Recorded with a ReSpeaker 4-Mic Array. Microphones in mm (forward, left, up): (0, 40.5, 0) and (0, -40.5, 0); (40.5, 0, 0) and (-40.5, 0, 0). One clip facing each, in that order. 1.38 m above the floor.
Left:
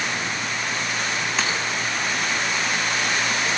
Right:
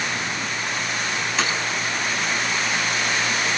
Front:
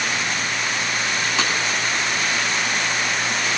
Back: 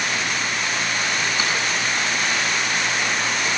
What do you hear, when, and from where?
1.4 s breaking glass: straight ahead, 7 m